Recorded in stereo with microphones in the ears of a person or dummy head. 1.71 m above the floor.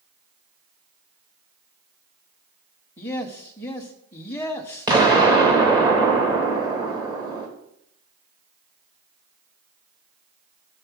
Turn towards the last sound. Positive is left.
turn(degrees=-15)  # may be behind; listen again after turning